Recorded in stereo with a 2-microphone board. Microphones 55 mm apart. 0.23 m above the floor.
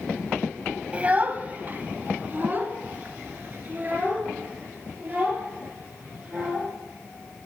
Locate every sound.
0.9 s a child speaking: 25° right (ahead or behind), 0.8 m; by 6.7 s 35° right (ahead or behind), 4.5 m